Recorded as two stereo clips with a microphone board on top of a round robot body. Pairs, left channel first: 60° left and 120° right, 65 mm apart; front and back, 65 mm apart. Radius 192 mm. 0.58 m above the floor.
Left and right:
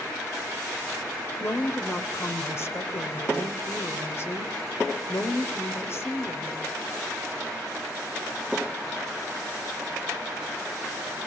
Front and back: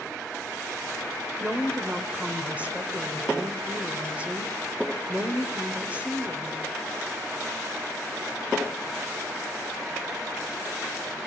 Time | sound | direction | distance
1.4 | a woman speaking | 110° left | 2.5 m